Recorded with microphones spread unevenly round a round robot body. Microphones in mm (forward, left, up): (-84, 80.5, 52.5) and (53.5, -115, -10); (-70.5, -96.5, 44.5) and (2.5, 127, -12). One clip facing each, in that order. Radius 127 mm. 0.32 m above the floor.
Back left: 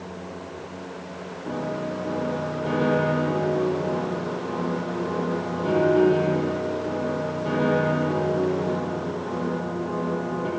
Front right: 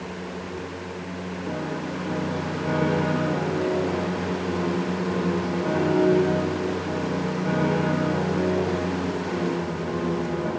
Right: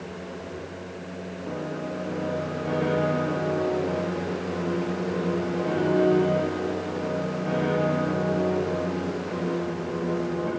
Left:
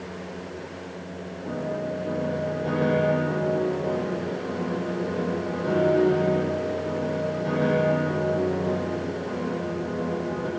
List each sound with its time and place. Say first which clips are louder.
1.4 s a piano: back left 2 dB, left 3 dB; 90° left, 9.5 m